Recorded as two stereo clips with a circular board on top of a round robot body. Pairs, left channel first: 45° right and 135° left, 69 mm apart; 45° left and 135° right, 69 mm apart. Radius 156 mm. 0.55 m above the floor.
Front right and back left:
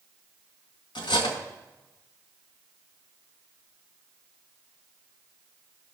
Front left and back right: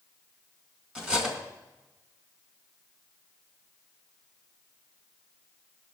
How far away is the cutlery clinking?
About 2 m.